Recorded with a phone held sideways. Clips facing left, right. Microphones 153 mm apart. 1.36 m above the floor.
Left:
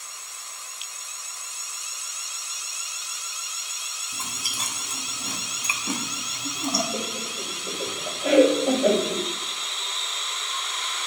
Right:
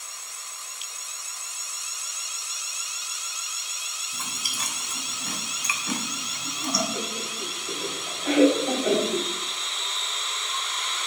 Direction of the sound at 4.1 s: 25° left (ahead or behind).